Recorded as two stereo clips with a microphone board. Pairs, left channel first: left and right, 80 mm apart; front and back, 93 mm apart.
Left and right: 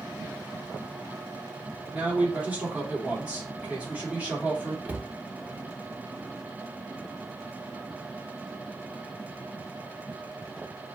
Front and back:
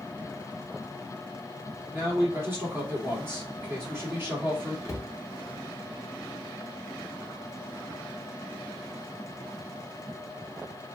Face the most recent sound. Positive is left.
turn(degrees=-35)